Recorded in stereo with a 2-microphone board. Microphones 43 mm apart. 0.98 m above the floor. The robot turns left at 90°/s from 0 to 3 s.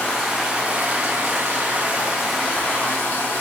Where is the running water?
30° left, 1.0 m; by 3.4 s 120° left, 1.0 m.